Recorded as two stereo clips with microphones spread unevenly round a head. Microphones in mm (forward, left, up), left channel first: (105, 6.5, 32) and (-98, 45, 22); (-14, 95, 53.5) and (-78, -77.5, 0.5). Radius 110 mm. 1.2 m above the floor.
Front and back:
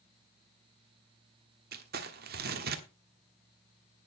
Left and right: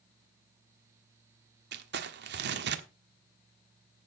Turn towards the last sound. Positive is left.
turn(degrees=-145)